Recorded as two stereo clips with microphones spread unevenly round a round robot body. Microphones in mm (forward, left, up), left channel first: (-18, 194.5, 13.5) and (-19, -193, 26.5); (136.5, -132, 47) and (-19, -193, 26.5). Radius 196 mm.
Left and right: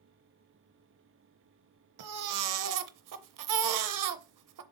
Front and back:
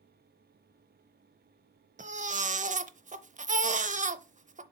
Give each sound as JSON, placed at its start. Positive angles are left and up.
{"t": 2.0, "sound": "a baby crying", "azimuth_deg": -125, "distance_m": 0.7}